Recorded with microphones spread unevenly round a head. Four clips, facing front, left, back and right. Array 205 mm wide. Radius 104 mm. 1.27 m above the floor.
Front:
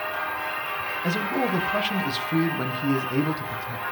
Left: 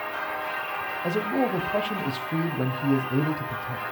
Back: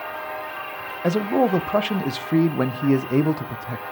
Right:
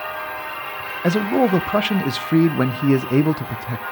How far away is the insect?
About 4.5 m.